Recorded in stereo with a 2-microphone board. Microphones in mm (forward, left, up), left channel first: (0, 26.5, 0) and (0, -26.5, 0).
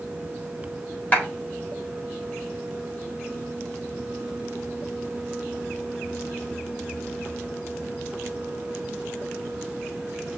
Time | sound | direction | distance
1.1 | a clap | 30° left (ahead or behind) | 3.5 m